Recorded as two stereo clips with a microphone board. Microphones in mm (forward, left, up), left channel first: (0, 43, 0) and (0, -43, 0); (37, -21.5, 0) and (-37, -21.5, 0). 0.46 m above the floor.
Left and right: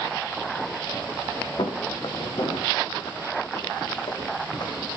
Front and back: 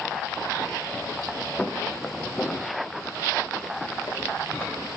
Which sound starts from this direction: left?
Footsteps, at 1.6 s.